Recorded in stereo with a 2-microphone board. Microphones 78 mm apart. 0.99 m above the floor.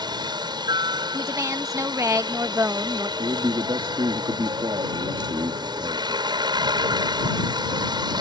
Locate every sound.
0.0 s a helicopter: 70° right (ahead or behind)
1.1 s a woman speaking: 40° right (ahead or behind)
3.2 s a man speaking: 80° right